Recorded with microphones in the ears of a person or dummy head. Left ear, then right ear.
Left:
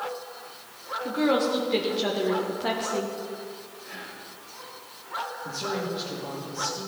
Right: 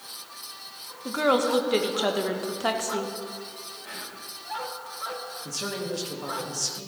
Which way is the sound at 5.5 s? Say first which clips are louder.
Right 3 dB; 65° right (ahead or behind).